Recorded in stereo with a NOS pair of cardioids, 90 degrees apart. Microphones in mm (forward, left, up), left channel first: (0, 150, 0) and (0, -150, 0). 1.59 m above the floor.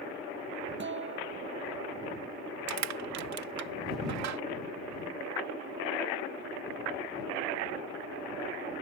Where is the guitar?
40° right.